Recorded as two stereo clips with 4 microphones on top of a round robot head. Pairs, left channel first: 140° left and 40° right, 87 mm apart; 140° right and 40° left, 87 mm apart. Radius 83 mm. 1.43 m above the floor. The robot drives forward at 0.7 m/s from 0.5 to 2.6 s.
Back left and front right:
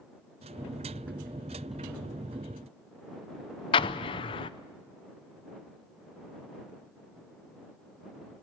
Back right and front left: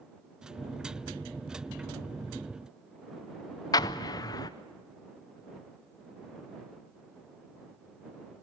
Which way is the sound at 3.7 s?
170° left.